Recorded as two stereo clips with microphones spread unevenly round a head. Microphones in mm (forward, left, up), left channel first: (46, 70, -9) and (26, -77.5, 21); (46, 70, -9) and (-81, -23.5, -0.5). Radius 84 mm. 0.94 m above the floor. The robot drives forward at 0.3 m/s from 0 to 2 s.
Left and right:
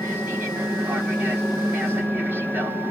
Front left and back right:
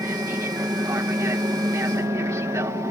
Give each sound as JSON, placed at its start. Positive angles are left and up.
{"t": 0.0, "sound": "an aircraft", "azimuth_deg": 180}